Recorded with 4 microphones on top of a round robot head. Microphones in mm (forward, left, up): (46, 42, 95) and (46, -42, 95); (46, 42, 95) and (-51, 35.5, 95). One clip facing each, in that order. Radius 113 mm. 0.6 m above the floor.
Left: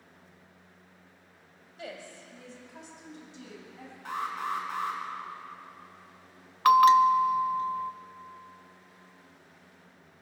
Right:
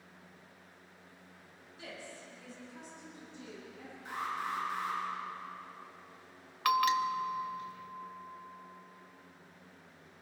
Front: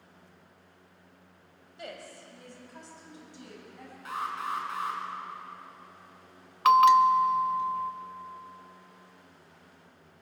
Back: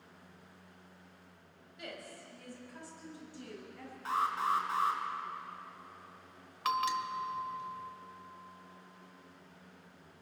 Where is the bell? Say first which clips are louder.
Left 11 dB, front 15 dB; 35° left, 0.7 m.